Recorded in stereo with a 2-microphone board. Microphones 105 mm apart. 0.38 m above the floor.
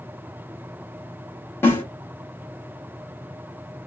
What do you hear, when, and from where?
1.6 s a snare drum: 20° left (ahead or behind), 1.3 m